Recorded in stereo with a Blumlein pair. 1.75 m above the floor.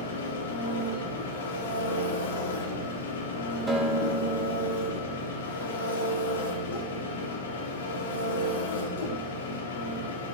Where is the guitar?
5° right, 4 m.